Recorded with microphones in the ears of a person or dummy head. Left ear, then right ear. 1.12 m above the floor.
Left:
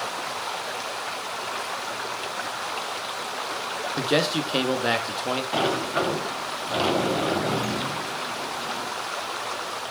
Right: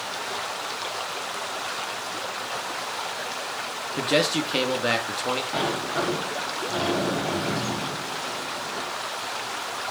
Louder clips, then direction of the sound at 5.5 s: Left 2 dB; 25° left (ahead or behind).